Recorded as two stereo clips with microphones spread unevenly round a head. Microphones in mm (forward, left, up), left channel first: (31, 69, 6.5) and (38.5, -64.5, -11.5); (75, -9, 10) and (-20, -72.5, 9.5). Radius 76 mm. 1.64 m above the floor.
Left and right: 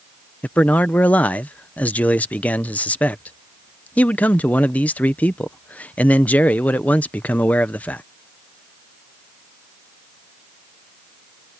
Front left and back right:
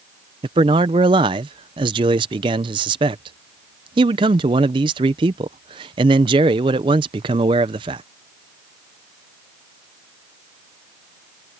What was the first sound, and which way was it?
A man speaking, 165° left.